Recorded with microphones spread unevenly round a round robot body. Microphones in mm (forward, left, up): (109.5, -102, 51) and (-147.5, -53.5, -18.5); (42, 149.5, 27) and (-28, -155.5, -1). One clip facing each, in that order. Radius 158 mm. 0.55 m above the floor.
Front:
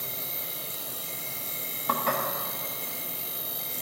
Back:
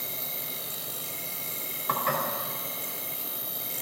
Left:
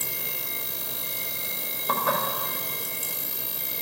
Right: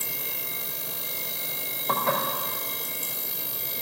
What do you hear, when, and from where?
0.0 s an insect: 60° left, 1.9 m
1.9 s dishes clattering: 5° right, 1.8 m